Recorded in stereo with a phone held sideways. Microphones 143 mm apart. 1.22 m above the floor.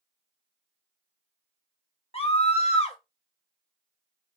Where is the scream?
45° left (ahead or behind), 0.8 m.